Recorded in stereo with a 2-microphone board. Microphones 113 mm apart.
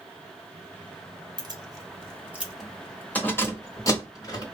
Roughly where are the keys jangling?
Right.